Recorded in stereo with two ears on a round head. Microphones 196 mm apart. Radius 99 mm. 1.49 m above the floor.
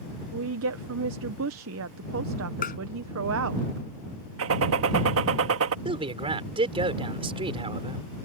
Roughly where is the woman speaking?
Right.